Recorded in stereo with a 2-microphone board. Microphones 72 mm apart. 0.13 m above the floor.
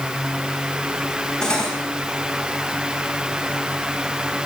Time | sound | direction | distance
1.4 | cutlery clinking | 10° left (ahead or behind) | 4.5 m